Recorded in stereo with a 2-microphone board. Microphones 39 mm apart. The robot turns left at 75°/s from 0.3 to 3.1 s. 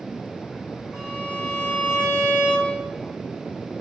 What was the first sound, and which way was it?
A violin, 175° left.